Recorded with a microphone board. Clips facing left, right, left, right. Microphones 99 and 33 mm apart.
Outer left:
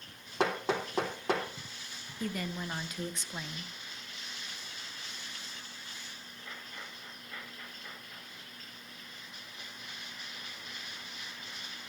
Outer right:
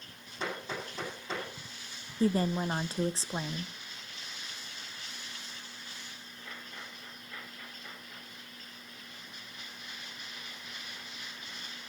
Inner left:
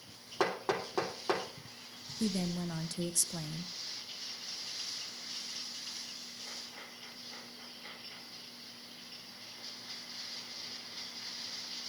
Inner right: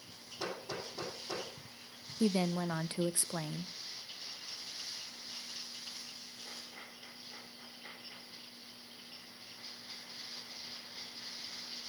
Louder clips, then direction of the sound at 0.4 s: Outer left 7 dB, inner left 8 dB; 85° left.